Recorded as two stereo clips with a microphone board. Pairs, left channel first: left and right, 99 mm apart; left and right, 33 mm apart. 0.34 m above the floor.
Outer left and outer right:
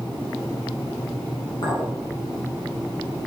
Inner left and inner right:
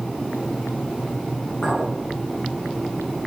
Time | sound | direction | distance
1.6 | a clink | 60° left (ahead or behind) | 2.5 m